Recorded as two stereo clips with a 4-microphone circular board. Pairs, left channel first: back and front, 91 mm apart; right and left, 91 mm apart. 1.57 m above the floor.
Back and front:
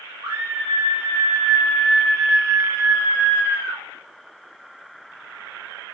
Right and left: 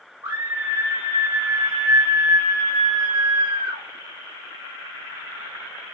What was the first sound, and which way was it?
A scream, 50° left.